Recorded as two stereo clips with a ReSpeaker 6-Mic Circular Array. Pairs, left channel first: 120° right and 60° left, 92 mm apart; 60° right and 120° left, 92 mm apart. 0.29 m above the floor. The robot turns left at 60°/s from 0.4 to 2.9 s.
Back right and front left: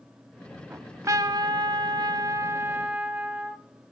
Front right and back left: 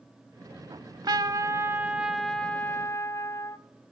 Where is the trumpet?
120° left, 0.7 m; by 3.6 s 10° right, 0.7 m.